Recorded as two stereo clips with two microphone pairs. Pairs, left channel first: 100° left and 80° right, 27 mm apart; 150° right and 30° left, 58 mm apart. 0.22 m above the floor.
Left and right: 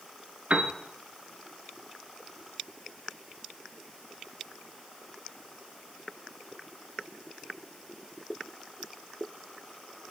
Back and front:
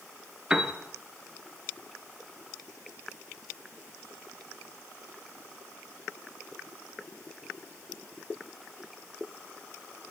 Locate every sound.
0.5 s a piano: 45° right, 1.3 m